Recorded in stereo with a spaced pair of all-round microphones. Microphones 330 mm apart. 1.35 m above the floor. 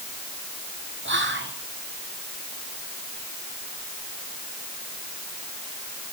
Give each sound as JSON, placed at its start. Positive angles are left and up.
{"t": 1.1, "sound": "whispering", "side_deg": -35, "distance_m": 0.8}